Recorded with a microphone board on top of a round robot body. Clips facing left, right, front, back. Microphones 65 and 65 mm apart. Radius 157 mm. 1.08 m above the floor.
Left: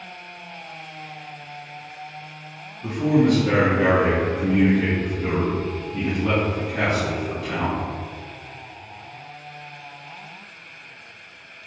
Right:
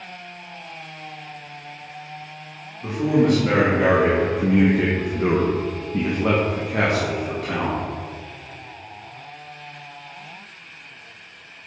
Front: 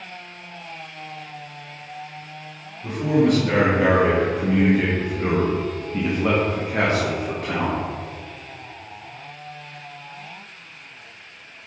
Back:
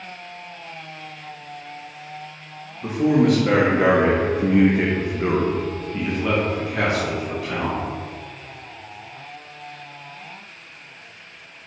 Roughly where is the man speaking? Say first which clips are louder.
Even, back 2 dB; behind.